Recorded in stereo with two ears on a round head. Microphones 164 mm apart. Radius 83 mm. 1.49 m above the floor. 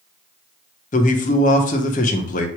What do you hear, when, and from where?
0.9 s a man speaking: 40° left (ahead or behind), 1.1 m